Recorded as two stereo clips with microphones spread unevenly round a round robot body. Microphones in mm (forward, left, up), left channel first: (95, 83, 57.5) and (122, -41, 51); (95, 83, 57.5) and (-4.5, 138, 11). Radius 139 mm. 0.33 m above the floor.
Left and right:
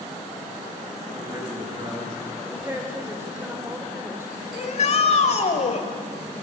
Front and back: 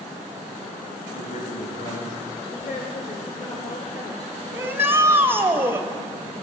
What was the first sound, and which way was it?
A man speaking, 25° right.